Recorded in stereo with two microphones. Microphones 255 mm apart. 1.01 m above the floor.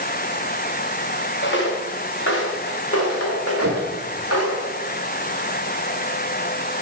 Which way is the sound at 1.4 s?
45° left (ahead or behind).